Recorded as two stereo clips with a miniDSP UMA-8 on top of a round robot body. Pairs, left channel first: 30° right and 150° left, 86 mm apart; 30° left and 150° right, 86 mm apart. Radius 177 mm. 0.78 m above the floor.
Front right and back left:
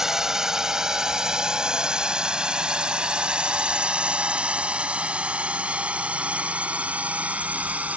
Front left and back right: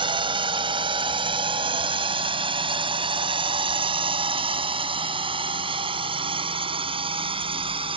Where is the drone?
125° right; by 8.0 s 135° right.